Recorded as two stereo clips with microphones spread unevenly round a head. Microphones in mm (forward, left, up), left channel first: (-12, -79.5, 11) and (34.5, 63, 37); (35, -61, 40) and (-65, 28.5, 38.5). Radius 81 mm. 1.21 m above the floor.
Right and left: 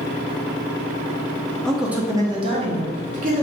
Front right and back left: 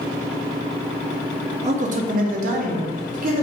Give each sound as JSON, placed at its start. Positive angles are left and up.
{"t": 1.6, "sound": "a man speaking", "azimuth_deg": 170, "distance_m": 0.6}